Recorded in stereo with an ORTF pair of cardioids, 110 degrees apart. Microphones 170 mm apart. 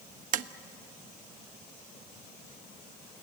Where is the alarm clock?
I don't hear an alarm clock.